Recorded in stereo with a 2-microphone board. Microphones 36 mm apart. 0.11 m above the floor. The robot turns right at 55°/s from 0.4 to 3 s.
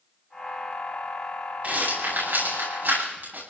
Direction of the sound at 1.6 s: 45° right (ahead or behind).